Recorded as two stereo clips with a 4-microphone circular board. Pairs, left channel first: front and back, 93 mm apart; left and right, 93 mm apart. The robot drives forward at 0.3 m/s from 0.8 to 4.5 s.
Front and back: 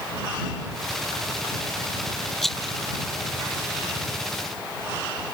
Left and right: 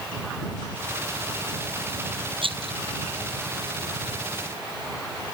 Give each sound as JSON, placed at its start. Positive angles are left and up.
{"t": 2.4, "sound": "a rattle", "azimuth_deg": -90}